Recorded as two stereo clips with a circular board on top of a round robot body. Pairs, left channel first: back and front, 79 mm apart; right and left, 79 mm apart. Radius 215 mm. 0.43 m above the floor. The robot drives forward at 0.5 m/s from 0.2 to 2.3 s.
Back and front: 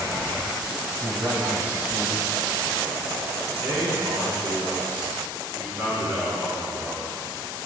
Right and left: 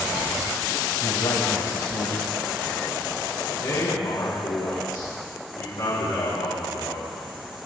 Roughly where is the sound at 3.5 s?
Ahead right.